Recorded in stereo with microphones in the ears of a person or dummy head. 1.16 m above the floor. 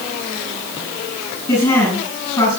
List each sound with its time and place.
1.5 s a woman speaking: 20° left (ahead or behind), 6.5 m